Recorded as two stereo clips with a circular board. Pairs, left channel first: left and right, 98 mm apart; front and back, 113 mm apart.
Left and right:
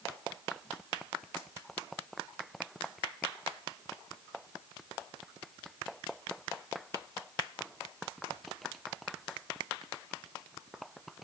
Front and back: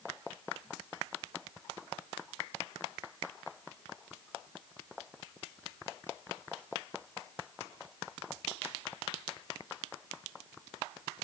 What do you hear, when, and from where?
Only background noise.